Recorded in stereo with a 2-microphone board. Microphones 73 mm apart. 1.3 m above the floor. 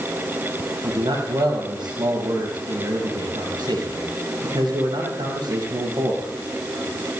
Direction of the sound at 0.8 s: 85° right.